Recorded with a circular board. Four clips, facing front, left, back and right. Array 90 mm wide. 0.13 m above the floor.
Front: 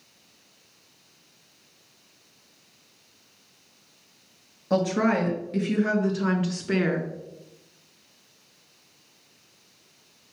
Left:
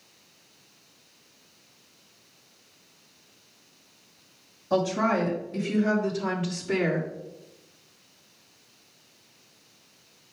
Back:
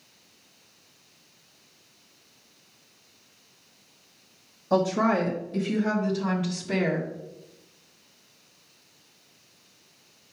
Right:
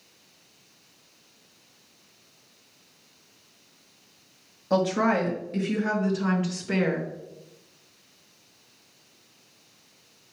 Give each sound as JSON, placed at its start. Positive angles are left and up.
{"t": 4.7, "sound": "a woman speaking", "azimuth_deg": -30, "distance_m": 2.5}